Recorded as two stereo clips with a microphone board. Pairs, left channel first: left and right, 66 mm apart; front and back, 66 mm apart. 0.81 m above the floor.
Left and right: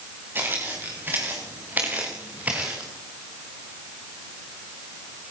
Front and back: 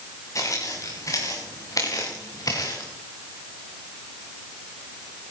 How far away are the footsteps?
About 6.5 m.